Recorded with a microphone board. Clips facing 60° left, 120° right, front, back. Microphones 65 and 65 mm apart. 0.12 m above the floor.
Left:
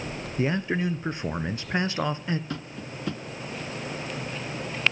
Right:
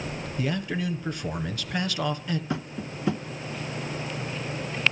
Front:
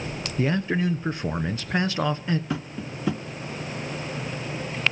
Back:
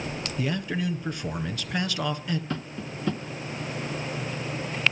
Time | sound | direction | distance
0.4 | a man speaking | 30° left | 1.5 m
2.5 | tapping | 65° right | 0.9 m